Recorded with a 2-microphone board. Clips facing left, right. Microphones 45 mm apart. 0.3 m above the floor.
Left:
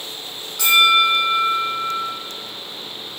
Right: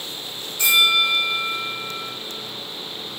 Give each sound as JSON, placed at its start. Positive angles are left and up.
{"t": 0.6, "sound": "a bell", "side_deg": 75, "distance_m": 8.5}